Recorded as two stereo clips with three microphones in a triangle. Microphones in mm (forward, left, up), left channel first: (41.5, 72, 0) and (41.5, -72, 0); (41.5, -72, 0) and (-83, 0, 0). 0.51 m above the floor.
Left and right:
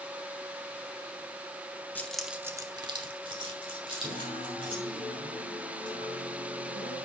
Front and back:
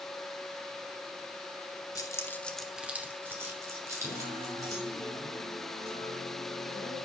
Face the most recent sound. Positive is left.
turn(degrees=-95)